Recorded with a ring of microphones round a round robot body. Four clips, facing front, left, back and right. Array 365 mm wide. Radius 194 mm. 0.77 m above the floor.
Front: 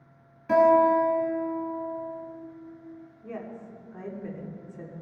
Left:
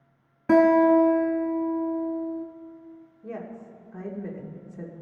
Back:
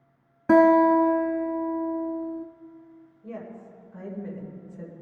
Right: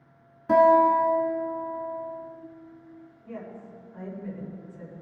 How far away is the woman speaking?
About 2.5 m.